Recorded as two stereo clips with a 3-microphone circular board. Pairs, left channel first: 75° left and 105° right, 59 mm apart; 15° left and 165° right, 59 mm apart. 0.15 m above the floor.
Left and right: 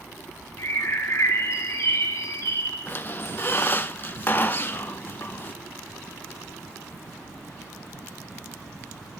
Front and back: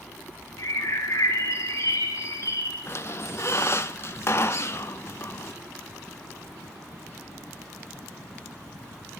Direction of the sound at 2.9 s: 30° left.